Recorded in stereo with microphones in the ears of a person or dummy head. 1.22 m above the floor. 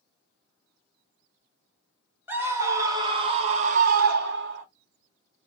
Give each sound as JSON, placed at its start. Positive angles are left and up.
{"t": 2.3, "sound": "a scream", "side_deg": -15, "distance_m": 1.4}